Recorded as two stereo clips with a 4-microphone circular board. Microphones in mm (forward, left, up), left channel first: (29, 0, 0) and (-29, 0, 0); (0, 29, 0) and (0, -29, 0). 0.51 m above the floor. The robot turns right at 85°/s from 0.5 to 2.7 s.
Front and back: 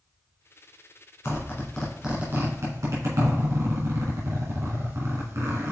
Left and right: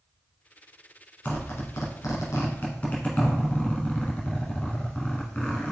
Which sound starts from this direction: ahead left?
A zipper, at 1.2 s.